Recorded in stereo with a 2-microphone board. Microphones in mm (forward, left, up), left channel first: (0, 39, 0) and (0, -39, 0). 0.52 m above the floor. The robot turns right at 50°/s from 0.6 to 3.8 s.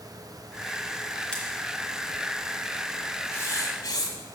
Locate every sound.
1.3 s scissors: 15° left (ahead or behind), 2 m; by 1.4 s 20° left (ahead or behind), 2 m
3.3 s writing: 30° left (ahead or behind), 1.1 m; by 4.2 s 55° left (ahead or behind), 1.1 m